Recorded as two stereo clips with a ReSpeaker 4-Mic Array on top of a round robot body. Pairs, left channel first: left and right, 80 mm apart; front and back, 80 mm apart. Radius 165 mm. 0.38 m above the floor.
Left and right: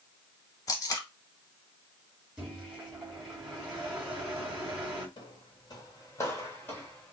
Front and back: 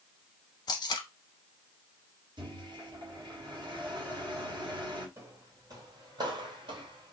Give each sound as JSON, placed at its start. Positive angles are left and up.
{"t": 0.7, "sound": "tape being pulled", "azimuth_deg": 40, "distance_m": 0.5}
{"t": 2.4, "sound": "a microwave", "azimuth_deg": -170, "distance_m": 1.9}
{"t": 5.2, "sound": "footsteps", "azimuth_deg": 120, "distance_m": 1.1}